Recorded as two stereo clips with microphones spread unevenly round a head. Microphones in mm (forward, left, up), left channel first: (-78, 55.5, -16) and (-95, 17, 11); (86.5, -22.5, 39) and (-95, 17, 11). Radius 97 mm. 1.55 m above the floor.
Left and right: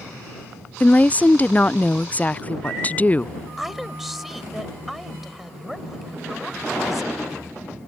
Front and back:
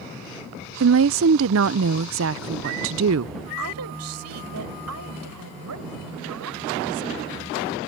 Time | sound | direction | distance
0.8 | a woman speaking | 145° left | ?
3.6 | a woman speaking | 165° left | ?